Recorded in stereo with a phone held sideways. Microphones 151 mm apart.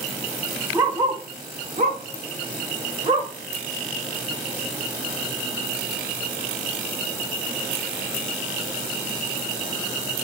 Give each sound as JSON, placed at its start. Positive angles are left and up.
{"t": 0.7, "sound": "a dog barking", "side_deg": -20, "distance_m": 1.2}